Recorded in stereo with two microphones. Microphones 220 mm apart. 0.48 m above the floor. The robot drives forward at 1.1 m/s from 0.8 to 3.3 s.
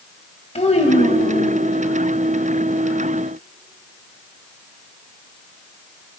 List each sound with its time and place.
0.6 s a child speaking: 30° left (ahead or behind), 2.5 m; by 1.6 s 25° left (ahead or behind), 3 m